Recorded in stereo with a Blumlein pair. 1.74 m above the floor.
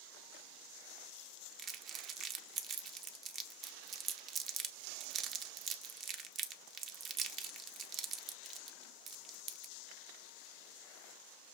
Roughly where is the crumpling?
Ahead right.